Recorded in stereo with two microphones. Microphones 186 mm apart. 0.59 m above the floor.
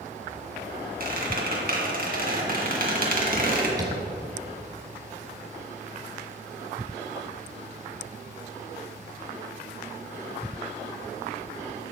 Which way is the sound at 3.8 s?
20° right (ahead or behind).